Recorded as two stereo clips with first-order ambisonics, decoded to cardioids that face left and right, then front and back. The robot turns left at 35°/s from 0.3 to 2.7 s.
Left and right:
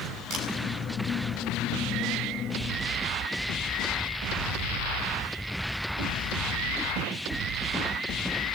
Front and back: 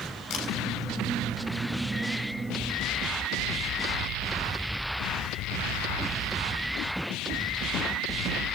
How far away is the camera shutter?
About 5 m.